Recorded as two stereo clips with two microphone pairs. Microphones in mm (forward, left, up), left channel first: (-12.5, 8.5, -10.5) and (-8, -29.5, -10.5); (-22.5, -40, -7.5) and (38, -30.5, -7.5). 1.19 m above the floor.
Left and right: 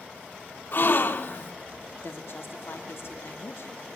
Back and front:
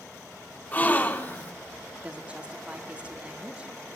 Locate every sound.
0.7 s a gasp: 130° left, 1.8 m
2.0 s a woman speaking: 80° left, 2.5 m